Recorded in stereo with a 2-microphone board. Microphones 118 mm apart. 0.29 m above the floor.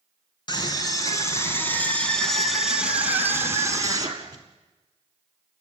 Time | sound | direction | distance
0.5 | a scream | 35° left (ahead or behind) | 4 m